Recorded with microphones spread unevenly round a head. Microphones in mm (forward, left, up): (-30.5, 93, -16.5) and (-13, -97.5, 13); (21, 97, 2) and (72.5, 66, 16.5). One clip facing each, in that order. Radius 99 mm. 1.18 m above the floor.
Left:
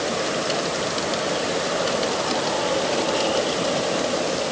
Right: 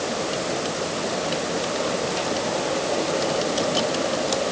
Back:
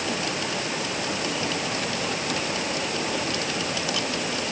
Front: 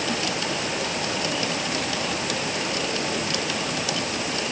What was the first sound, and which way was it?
Only background noise.